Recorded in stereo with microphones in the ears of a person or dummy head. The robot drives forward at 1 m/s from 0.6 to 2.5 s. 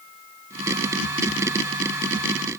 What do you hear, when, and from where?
Only background noise.